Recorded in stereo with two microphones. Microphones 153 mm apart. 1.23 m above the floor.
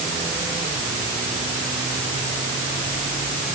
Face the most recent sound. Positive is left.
No sound to turn to.